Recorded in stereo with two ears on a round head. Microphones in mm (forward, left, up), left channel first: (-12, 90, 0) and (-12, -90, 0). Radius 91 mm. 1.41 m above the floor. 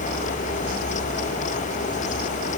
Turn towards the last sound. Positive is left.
No sound to turn to.